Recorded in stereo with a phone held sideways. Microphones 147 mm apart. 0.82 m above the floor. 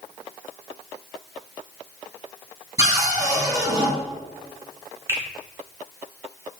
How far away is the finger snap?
About 1.5 m.